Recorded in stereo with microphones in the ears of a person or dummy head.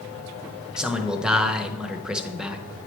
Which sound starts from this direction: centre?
A man speaking, at 0.8 s.